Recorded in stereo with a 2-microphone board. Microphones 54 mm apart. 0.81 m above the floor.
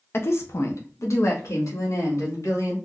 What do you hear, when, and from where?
0.1 s a woman speaking: 45° left (ahead or behind), 0.6 m; by 2.8 s 75° left (ahead or behind), 2 m